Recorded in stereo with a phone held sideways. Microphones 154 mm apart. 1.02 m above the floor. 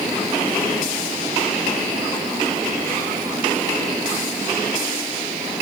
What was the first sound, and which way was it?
Only background noise.